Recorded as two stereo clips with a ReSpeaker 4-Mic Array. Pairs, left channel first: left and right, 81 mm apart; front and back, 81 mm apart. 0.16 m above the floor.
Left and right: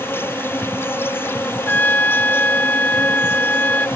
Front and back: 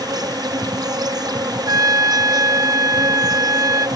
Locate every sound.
0.0 s an insect: 150° left
1.7 s a trumpet: 155° left